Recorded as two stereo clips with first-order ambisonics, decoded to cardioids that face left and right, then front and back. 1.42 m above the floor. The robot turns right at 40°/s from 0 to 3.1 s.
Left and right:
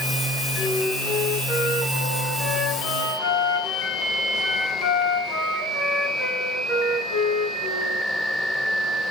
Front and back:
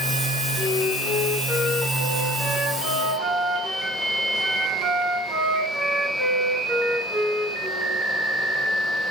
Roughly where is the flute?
Ahead left.